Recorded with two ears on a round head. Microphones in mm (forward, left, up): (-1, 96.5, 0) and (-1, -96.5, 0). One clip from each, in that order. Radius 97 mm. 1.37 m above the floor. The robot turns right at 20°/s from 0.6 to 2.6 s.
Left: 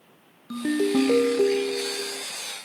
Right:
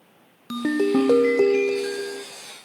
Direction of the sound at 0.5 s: 100° right.